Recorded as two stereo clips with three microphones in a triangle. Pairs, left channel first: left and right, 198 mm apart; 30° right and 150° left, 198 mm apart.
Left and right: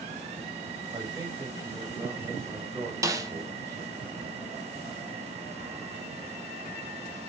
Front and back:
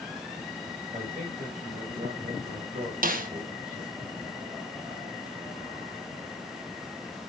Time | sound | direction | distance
0.9 | a man speaking | 160° right | 7 m
3.0 | a snare drum | 160° right | 1.3 m